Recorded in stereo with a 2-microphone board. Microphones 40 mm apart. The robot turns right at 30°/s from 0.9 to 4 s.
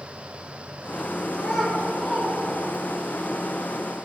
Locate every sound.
1.3 s a child speaking: 5° left (ahead or behind), 3 m; by 3.1 s 45° right (ahead or behind), 3 m